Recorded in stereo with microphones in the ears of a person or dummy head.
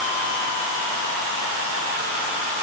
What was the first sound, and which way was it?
Only background noise.